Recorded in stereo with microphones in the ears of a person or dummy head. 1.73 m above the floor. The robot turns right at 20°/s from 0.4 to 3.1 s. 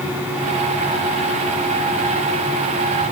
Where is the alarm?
I don't hear an alarm.